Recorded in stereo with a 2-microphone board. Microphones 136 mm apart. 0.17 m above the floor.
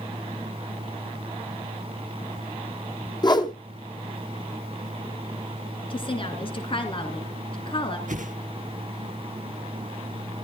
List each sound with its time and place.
3.2 s a whoosh: 30° left (ahead or behind), 1.3 m
5.9 s a woman speaking: 40° left (ahead or behind), 2.5 m
8.1 s a whoosh: 70° right (ahead or behind), 1.0 m